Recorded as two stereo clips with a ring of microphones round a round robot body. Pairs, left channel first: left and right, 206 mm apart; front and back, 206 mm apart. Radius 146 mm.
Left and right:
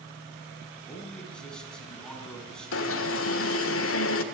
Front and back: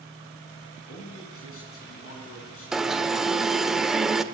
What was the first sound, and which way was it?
A man speaking, 5° left.